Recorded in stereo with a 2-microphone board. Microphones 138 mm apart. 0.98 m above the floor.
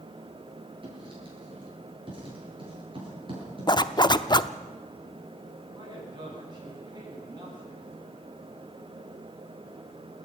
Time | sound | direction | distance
0.8 | writing | 40° right (ahead or behind) | 8.5 m
3.7 | a zipper | 30° left (ahead or behind) | 0.7 m
5.7 | a man speaking | 35° right (ahead or behind) | 9.5 m